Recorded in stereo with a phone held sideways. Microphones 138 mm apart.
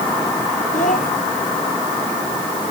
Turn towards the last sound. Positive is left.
turn(degrees=65)  # may be behind; listen again after turning